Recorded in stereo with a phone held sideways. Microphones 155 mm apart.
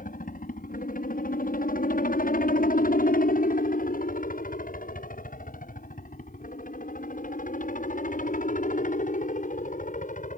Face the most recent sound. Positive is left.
turn(degrees=55)  # may be behind; listen again after turning